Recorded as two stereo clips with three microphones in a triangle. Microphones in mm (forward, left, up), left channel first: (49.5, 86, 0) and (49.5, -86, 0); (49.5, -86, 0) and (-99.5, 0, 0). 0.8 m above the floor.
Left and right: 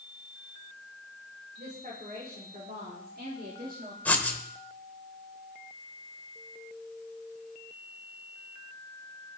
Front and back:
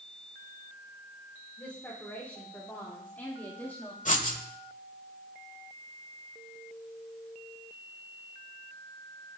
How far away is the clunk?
I don't hear a clunk.